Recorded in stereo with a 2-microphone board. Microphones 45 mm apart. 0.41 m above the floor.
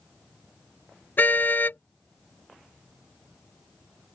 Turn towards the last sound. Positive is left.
turn(degrees=45)  # may be behind; listen again after turning